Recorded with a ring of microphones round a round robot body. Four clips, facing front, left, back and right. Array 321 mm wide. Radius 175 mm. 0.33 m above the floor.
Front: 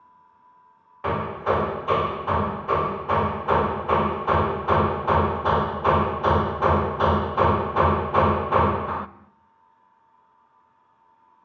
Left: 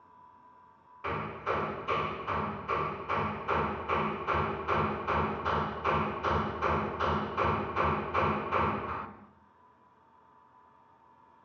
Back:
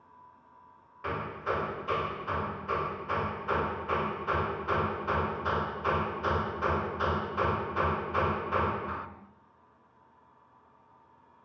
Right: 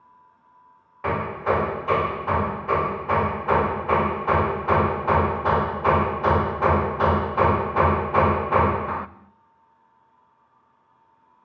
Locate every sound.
1.0 s hammering: 45° right, 1.4 m